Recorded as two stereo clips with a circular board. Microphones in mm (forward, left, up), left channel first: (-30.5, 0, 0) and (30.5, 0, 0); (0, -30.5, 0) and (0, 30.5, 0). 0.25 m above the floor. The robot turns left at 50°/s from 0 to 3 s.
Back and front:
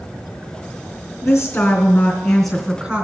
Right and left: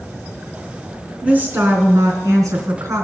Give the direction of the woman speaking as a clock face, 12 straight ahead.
7 o'clock.